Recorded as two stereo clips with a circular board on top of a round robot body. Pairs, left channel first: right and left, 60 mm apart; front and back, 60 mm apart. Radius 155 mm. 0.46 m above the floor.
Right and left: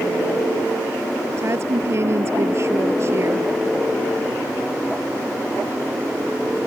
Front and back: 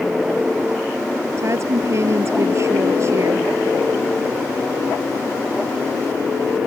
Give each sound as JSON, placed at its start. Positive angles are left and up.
{"t": 1.4, "sound": "a woman speaking", "azimuth_deg": 135}